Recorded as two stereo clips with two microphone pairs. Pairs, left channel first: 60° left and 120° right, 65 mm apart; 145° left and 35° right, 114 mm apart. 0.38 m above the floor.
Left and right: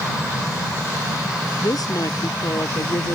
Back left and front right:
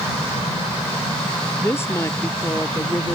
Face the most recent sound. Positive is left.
turn(degrees=75)